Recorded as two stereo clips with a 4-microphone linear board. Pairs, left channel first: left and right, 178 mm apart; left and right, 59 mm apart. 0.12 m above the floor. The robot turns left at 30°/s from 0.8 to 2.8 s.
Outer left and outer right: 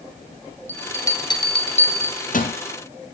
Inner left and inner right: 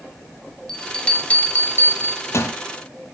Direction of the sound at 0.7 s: 10° left (ahead or behind).